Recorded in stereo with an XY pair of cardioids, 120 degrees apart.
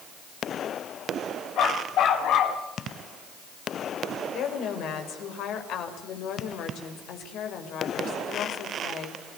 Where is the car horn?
I don't hear a car horn.